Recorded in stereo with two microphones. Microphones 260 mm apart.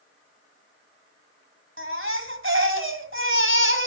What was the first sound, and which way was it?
A baby crying, 50° right (ahead or behind).